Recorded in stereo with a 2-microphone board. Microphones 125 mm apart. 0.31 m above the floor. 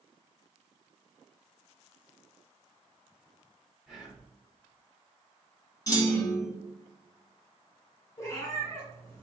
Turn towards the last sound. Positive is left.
turn(degrees=30)  # may be behind; listen again after turning